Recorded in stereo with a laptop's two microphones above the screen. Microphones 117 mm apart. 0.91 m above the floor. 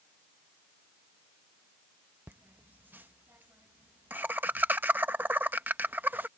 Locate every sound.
2.3 s laughter: 15° right (ahead or behind)